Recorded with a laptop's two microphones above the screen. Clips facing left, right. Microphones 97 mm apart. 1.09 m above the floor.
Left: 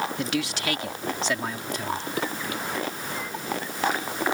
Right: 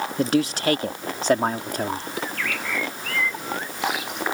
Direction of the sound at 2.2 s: 85° right.